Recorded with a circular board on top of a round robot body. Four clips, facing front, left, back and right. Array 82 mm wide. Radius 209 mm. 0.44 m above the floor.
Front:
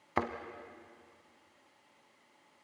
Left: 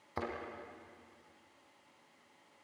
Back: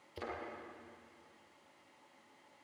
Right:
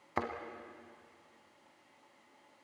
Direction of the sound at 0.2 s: 25° right.